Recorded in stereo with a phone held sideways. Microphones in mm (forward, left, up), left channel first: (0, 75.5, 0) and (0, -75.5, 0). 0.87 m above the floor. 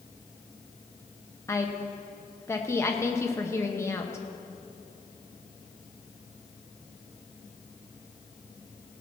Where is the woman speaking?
15° left (ahead or behind), 1.0 m.